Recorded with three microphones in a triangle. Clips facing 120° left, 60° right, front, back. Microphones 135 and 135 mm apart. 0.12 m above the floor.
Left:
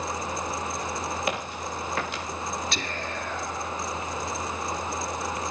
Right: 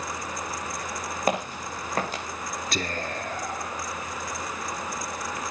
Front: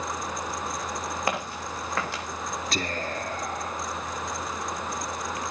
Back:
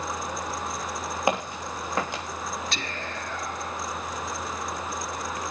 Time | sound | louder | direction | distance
1.3 | footsteps | right 3 dB, back 6 dB | 110° right | 6 m
2.7 | whispering | right 2 dB, front 4 dB | 35° right | 2 m